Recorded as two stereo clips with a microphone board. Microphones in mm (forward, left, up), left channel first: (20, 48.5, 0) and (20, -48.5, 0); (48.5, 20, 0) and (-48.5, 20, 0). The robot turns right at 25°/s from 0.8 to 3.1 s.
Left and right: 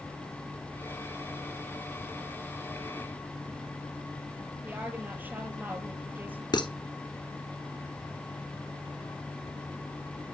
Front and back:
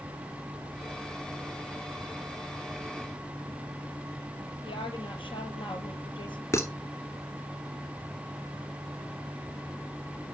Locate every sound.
4.6 s a woman speaking: 20° right, 4.5 m
6.5 s dishes clattering: 60° left, 2.5 m